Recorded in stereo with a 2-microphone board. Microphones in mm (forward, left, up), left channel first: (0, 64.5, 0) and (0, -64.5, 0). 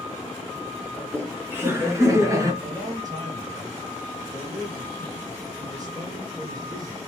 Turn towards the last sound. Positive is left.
turn(degrees=-30)  # may be behind; listen again after turning